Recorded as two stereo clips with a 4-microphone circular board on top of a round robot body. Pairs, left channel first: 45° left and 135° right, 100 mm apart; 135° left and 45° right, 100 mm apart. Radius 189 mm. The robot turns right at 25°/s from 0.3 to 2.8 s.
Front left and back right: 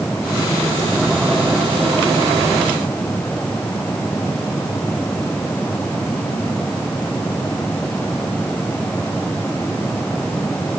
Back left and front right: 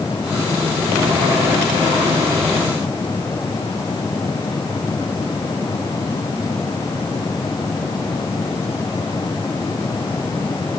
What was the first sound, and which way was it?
Only background noise.